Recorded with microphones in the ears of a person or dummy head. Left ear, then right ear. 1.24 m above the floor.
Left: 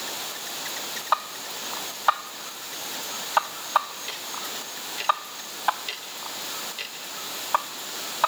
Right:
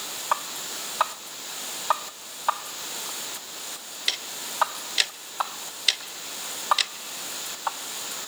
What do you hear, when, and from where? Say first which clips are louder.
4.1 s ticking: right 7 dB; 55° right (ahead or behind), 1.0 m